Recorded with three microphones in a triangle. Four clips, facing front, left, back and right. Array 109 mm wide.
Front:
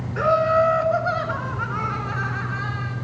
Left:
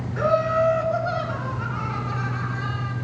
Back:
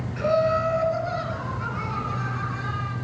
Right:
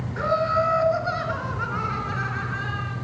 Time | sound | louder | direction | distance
0.2 | laughter | left 2 dB, front 4 dB | 5° right | 1.9 m